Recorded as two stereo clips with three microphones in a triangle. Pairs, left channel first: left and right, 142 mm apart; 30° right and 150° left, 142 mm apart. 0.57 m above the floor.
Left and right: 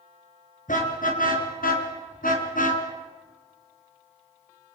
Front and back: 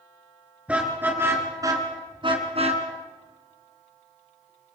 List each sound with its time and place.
0.7 s a car horn: 70° left, 4 m; by 2.8 s 110° left, 3 m